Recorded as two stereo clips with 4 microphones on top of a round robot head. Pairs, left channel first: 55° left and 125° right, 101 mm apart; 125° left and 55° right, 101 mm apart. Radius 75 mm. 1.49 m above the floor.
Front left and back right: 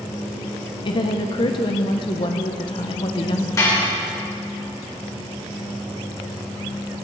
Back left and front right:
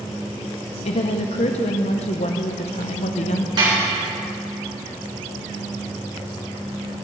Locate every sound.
0.8 s a woman speaking: 100° left, 1.0 m
3.6 s dishes clattering: 5° right, 4 m